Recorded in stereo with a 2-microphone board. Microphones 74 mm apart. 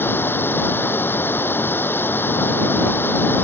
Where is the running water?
30° left (ahead or behind).